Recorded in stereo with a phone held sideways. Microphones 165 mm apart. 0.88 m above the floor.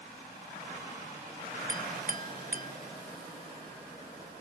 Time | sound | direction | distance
1.7 | a clink | 55° right (ahead or behind) | ?